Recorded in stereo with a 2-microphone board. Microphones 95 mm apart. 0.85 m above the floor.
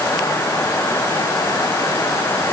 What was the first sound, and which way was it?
Only background noise.